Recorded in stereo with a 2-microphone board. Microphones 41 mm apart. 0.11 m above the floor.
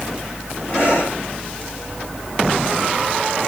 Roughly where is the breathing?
Left.